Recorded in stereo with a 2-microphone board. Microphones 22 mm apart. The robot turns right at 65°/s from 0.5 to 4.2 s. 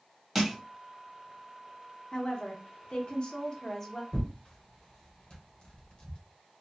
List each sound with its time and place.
0.3 s crushing: 5° right (ahead or behind), 1.3 m
2.1 s a woman speaking: 40° left, 0.9 m; by 4.0 s 165° left, 0.9 m
4.1 s tearing paper: 35° left (ahead or behind), 1.1 m; by 6.2 s 40° left (ahead or behind), 1.1 m